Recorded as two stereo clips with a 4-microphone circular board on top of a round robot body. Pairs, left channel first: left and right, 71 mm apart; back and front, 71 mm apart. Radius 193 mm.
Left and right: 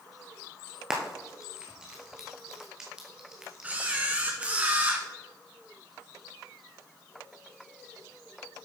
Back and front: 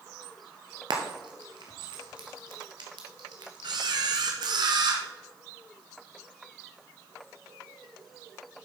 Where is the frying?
10° right, 1.7 m.